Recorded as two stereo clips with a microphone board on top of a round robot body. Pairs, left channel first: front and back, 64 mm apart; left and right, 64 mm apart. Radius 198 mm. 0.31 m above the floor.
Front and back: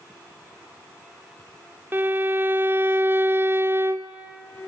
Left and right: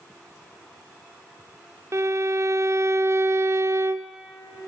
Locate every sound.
1.9 s a violin: 125° right, 0.9 m